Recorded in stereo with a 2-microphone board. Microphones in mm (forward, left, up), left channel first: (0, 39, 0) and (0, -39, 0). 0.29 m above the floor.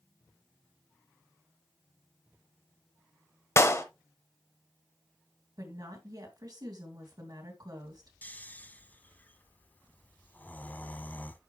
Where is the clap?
35° left (ahead or behind), 1.0 m.